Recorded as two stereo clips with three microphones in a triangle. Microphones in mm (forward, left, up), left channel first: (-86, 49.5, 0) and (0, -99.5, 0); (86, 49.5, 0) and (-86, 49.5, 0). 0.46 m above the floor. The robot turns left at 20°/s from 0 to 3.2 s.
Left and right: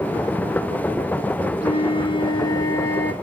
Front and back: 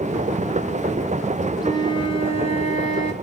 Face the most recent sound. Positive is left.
turn(degrees=40)